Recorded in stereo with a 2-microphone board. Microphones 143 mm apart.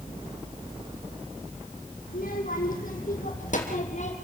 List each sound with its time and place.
2.1 s a child speaking: 80° left, 6 m; by 4.1 s 55° left (ahead or behind), 4.5 m